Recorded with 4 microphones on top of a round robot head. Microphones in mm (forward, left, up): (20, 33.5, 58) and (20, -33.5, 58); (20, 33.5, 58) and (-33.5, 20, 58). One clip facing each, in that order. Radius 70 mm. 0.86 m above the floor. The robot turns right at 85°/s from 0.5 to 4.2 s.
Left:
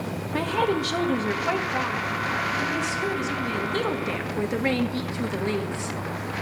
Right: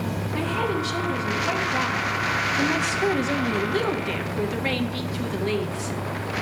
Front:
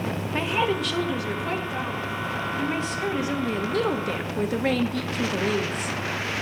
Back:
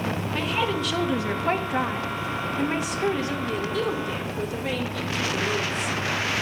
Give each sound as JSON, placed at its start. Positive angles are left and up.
{"t": 0.3, "sound": "a woman speaking", "azimuth_deg": 75, "distance_m": 1.4}